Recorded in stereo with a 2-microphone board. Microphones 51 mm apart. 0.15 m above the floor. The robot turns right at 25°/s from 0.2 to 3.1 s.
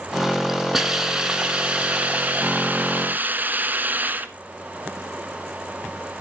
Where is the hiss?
165° right, 1.3 m; by 4.3 s 110° right, 1.3 m.